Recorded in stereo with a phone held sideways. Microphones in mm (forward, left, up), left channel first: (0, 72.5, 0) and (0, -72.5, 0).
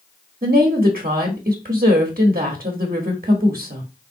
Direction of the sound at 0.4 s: 75° right (ahead or behind).